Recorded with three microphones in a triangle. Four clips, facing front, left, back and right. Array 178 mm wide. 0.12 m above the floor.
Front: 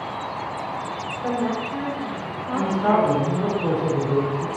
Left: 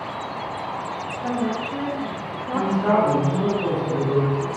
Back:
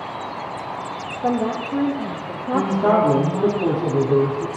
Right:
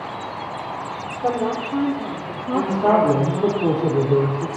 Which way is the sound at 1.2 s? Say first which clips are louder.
Right 4 dB, back 3 dB; 150° right.